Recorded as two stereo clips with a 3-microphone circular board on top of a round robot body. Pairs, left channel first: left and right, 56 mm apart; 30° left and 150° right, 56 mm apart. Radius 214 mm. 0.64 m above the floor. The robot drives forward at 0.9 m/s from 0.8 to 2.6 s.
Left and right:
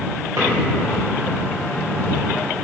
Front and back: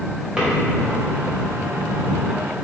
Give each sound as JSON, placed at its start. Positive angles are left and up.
{"t": 0.4, "sound": "a drawer", "azimuth_deg": -75, "distance_m": 2.5}